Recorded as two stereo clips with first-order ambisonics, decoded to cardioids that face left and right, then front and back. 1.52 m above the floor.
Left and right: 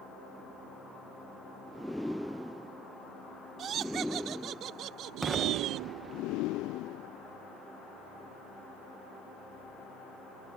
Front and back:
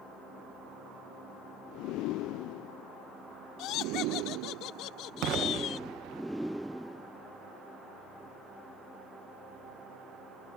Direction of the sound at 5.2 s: 170° right.